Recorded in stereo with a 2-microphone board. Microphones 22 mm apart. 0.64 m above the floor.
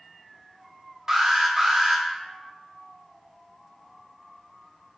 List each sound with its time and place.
1.1 s an alarm: 20° right (ahead or behind), 0.6 m